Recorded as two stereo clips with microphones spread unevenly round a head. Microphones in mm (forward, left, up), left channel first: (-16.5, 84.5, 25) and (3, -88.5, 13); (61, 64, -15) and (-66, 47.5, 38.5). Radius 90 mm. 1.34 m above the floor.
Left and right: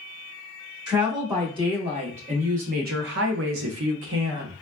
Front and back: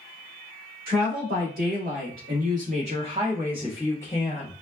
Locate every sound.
0.9 s a woman speaking: 150° right, 1.9 m; by 4.5 s 50° right, 0.9 m